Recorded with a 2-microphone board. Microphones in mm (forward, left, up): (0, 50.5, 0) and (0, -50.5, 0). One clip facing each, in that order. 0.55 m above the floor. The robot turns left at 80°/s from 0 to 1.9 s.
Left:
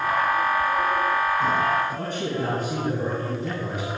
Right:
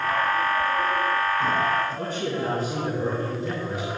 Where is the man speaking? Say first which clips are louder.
Even; 70° left (ahead or behind), 5 m.